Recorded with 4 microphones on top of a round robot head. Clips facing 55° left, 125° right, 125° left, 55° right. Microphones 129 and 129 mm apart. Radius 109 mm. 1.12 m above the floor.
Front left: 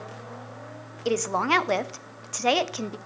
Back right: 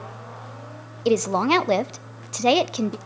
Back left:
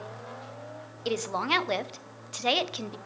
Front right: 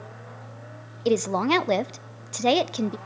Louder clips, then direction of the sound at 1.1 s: Back right 5 dB, front right 8 dB; 75° right.